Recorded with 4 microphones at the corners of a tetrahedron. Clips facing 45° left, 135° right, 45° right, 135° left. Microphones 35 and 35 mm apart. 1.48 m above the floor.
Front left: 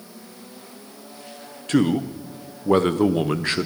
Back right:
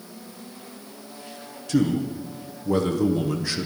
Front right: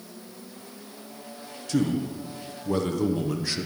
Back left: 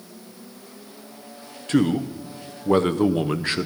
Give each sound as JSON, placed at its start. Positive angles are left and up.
{"t": 1.7, "sound": "a man speaking", "azimuth_deg": 85, "distance_m": 0.7}